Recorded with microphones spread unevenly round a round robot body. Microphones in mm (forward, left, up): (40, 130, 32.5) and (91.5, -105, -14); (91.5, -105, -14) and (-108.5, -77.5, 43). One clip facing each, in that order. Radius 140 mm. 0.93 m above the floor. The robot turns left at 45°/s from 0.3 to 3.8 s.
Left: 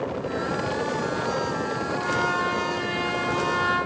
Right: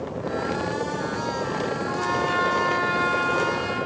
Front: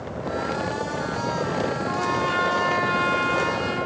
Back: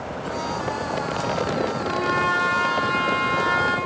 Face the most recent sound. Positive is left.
turn(degrees=170)